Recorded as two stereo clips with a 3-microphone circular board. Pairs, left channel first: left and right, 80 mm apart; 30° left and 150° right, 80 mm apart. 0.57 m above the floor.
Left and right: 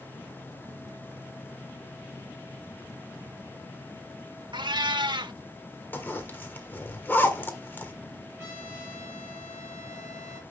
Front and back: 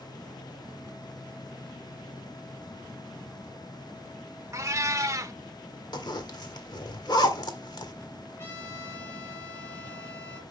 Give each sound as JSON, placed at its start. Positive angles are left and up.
{"t": 4.5, "sound": "a cat meowing", "azimuth_deg": -100, "distance_m": 0.8}
{"t": 5.9, "sound": "a zipper", "azimuth_deg": 30, "distance_m": 1.6}
{"t": 8.4, "sound": "a trumpet", "azimuth_deg": -30, "distance_m": 5.5}